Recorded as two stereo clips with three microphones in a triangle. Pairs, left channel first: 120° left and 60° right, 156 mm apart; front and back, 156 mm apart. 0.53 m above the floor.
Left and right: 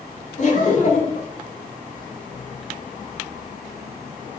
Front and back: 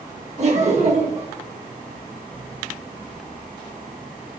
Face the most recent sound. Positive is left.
turn(degrees=145)